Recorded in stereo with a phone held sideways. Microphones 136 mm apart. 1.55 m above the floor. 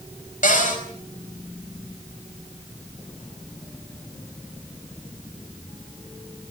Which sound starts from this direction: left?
A cupboard door, at 0.4 s.